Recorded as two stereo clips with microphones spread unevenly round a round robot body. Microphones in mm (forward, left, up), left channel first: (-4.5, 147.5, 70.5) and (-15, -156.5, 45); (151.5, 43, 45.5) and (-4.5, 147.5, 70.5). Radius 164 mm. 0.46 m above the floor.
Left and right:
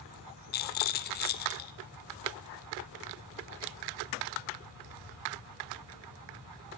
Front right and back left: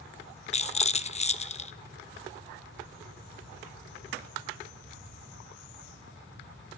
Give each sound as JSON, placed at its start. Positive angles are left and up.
{"t": 0.5, "sound": "a rattle", "azimuth_deg": 25, "distance_m": 0.7}